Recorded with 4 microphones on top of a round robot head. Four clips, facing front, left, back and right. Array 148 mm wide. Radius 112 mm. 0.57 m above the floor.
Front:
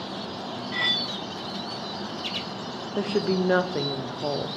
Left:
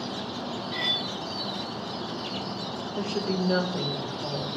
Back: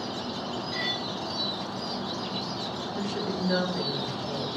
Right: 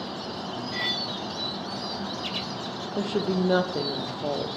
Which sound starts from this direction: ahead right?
A woman speaking, at 3.0 s.